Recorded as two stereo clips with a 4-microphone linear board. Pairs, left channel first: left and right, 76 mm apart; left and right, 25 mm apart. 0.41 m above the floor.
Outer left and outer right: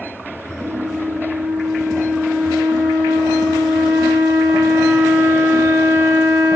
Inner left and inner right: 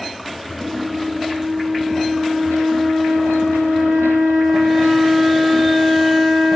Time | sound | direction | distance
0.6 | a flute | 5° left (ahead or behind) | 2.0 m